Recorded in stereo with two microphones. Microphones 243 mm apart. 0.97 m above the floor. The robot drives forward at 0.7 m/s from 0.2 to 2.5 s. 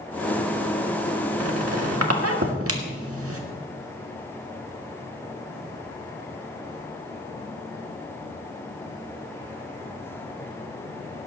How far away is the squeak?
About 1.5 m.